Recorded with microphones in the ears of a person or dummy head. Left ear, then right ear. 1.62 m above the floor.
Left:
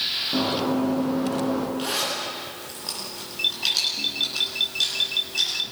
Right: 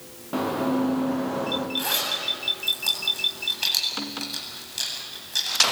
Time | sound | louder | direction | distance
0.3 | running footsteps | left 1 dB | 65° right (ahead or behind) | 6 m
1.8 | a zipper | right 1 dB | 75° right (ahead or behind) | 8.5 m